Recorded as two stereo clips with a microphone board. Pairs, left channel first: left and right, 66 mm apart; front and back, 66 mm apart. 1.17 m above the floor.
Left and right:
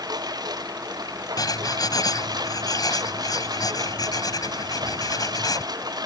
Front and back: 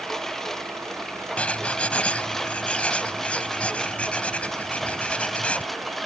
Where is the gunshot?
No gunshot in this recording.